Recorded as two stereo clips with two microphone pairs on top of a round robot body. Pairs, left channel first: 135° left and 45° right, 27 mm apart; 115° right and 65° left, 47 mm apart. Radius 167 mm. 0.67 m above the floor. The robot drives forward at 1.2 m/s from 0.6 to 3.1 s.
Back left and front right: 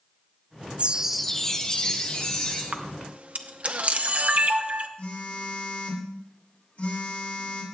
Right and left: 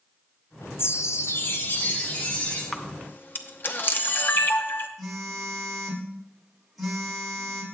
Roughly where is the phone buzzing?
Behind left.